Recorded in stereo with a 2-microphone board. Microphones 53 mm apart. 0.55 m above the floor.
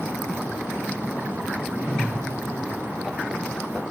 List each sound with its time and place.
1.7 s a whoosh: 45° right (ahead or behind), 2.5 m